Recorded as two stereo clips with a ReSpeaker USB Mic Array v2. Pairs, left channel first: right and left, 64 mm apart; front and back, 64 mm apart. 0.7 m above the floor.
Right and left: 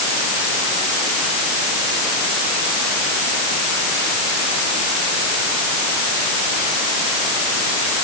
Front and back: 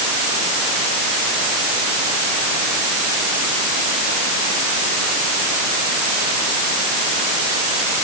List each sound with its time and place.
Only background noise.